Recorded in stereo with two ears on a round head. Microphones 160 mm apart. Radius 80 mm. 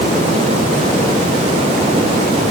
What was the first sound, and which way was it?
Only background noise.